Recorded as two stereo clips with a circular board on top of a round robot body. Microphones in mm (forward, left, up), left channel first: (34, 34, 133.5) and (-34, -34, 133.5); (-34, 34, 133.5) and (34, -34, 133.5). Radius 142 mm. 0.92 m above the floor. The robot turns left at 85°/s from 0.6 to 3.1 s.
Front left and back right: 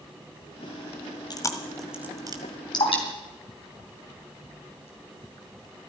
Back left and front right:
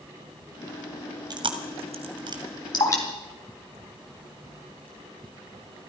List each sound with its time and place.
1.3 s chewing: straight ahead, 1.8 m; by 2.4 s 95° right, 1.8 m
2.7 s dripping: 90° left, 3 m; by 4.9 s 60° left, 3 m